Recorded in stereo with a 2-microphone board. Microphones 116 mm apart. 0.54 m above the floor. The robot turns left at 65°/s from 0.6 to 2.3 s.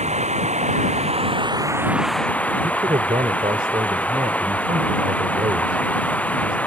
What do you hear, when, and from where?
0.0 s running water: 80° right; by 6.7 s 170° left
2.6 s a man speaking: 55° right (ahead or behind)